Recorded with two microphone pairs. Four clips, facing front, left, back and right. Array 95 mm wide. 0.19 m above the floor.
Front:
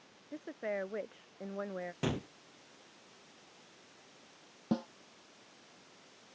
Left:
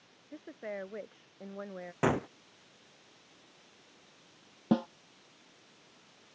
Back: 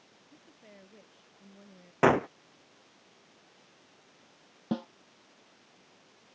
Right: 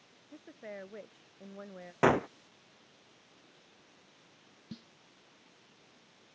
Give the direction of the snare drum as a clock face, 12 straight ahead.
9 o'clock.